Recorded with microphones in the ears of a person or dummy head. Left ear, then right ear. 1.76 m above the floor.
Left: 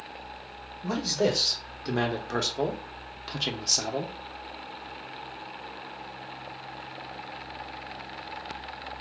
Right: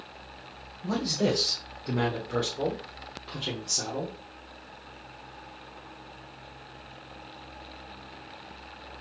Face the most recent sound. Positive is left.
turn(degrees=55)  # may be behind; listen again after turning